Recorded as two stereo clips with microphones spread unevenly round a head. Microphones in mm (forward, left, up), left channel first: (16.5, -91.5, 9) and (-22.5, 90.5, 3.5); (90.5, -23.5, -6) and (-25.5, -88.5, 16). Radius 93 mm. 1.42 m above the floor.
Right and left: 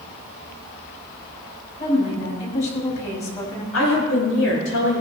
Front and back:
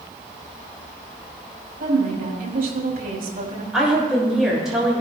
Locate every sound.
1.8 s a woman speaking: 130° right, 5.5 m
3.7 s a woman speaking: 65° right, 6.5 m